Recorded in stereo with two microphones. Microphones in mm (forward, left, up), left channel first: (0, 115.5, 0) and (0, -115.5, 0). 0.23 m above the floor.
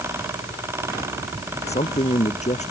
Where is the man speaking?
30° left (ahead or behind).